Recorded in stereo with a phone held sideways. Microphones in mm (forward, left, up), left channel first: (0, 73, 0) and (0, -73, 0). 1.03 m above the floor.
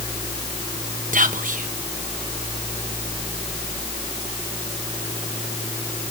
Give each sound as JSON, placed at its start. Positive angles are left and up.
{"t": 1.1, "sound": "whispering", "side_deg": -60, "distance_m": 0.9}